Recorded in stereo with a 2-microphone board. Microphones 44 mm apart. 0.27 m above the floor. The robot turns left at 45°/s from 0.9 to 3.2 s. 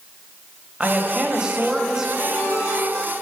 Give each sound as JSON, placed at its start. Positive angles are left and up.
{"t": 0.8, "sound": "a woman speaking", "side_deg": -20, "distance_m": 0.9}
{"t": 2.2, "sound": "a ringtone", "azimuth_deg": 105, "distance_m": 2.5}